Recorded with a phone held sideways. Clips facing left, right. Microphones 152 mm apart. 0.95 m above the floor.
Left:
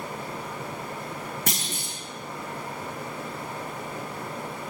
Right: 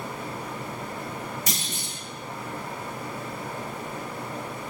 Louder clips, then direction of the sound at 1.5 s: Left 1 dB; 55° left (ahead or behind).